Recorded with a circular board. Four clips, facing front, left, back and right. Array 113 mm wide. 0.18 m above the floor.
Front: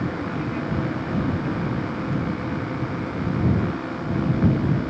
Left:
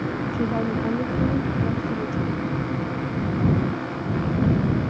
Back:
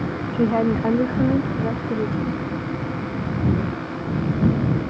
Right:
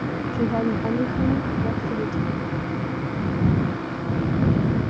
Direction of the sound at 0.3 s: 170° right.